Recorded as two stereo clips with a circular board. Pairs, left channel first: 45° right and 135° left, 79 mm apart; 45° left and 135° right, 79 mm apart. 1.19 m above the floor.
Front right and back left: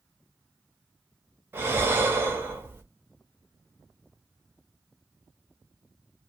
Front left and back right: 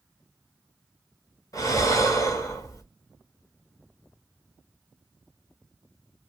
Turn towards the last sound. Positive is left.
turn(degrees=80)